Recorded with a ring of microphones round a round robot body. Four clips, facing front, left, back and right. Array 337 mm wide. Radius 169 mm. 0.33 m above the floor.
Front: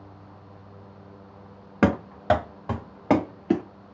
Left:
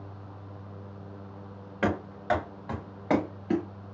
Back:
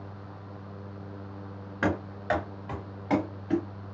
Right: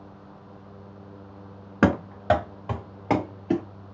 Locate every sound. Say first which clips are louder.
1.8 s running footsteps: right 7 dB, front 7 dB; 45° right, 1.5 m; by 3.6 s straight ahead, 1.8 m